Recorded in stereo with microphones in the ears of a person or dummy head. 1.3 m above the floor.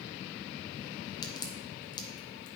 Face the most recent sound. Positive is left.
turn(degrees=25)  # may be behind; listen again after turning